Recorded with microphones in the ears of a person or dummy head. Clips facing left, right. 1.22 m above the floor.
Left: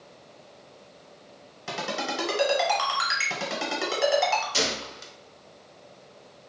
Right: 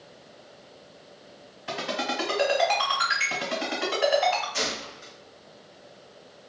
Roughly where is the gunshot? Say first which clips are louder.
Left 3 dB; left.